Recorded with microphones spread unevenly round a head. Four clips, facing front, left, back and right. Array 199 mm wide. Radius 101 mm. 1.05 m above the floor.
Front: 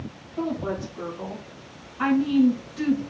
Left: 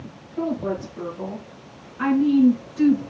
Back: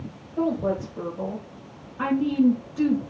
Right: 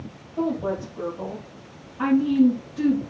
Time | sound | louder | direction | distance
0.4 | a woman speaking | even, back 4 dB | straight behind | 5.5 m